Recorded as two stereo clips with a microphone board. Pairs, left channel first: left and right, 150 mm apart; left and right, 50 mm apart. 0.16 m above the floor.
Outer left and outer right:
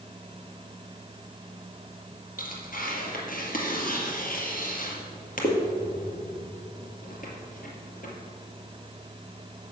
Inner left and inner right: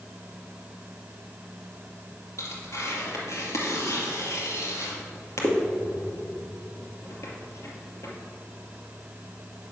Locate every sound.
2.4 s tearing paper: 60° left (ahead or behind), 2.5 m